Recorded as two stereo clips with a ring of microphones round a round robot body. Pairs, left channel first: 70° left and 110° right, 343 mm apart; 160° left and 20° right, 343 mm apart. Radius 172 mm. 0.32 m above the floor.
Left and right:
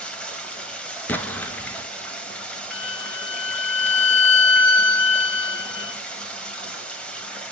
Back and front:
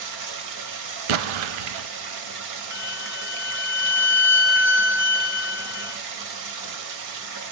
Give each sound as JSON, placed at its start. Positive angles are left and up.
{"t": 0.0, "sound": "running water", "azimuth_deg": -20, "distance_m": 1.3}
{"t": 1.1, "sound": "an explosion", "azimuth_deg": -20, "distance_m": 0.6}
{"t": 2.7, "sound": "a violin", "azimuth_deg": 75, "distance_m": 1.4}